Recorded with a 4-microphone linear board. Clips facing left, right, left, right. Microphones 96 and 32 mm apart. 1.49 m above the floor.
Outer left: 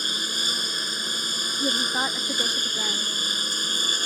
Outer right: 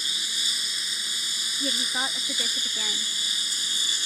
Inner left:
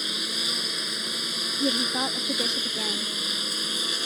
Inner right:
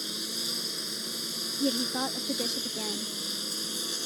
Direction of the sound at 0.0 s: 55° left (ahead or behind).